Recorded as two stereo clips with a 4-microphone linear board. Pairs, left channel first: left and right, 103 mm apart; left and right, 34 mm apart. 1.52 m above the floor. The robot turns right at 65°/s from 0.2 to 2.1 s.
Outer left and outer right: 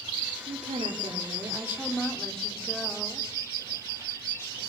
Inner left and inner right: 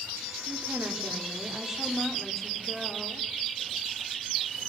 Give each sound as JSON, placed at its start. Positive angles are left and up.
{"t": 0.5, "sound": "a woman speaking", "azimuth_deg": -100, "distance_m": 4.5}